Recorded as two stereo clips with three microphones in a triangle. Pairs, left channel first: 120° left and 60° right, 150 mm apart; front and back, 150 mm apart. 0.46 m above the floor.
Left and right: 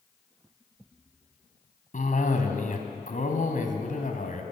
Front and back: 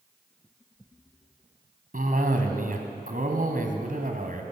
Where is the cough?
155° left, 2.5 m.